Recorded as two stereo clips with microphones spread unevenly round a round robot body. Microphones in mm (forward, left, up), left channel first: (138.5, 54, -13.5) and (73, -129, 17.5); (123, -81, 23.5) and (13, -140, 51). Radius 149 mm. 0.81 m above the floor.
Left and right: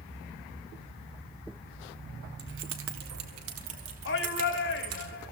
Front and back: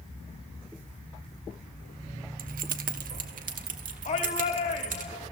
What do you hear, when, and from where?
2.4 s keys jangling: 165° right, 0.9 m; by 5.0 s 145° right, 3.5 m
4.0 s a shout: 60° left, 3 m